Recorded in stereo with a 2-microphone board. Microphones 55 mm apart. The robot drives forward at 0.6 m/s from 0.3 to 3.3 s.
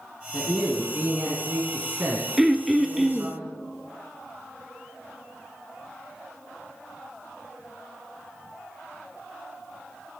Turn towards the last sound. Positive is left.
turn(degrees=-5)  # may be behind; listen again after turning